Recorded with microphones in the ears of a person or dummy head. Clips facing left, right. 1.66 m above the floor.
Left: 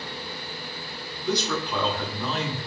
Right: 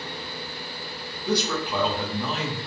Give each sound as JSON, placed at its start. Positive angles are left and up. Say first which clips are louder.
{"t": 1.2, "sound": "a man speaking", "louder": "right 1 dB", "side_deg": -15, "distance_m": 0.6}